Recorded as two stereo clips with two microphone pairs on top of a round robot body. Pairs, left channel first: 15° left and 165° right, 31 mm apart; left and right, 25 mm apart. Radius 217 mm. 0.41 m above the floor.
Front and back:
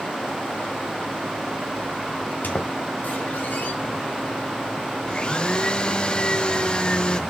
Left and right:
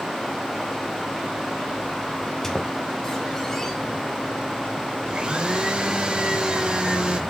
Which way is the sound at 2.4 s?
10° left.